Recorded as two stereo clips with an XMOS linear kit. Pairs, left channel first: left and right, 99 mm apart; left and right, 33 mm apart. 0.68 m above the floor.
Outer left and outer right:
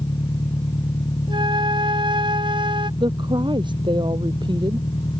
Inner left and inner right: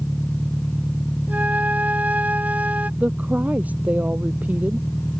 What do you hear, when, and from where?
0.0 s an engine running: 50° left (ahead or behind)
1.3 s a flute: 55° right (ahead or behind)
3.0 s a woman speaking: 50° right (ahead or behind)